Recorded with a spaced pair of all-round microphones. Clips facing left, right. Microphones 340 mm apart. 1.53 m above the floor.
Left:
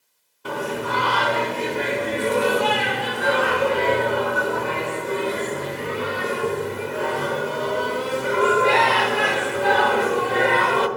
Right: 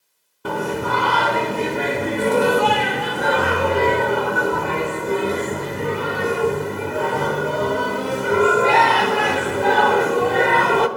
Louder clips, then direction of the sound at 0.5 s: Right 3 dB; 60° right (ahead or behind).